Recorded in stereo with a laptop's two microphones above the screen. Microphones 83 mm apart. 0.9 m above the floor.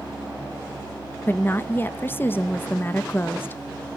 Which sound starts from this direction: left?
A woman speaking, at 1.3 s.